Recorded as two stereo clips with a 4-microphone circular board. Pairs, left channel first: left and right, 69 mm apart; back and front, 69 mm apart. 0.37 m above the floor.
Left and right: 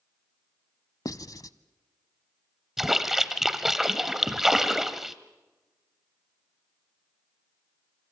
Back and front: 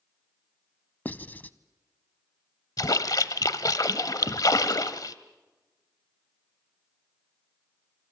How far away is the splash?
About 1.0 m.